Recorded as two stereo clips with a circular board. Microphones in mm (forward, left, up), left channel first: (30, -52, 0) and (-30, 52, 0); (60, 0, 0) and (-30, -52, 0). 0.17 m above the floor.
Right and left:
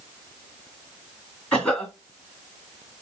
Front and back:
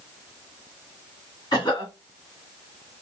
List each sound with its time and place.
1.5 s a cough: 20° left, 2 m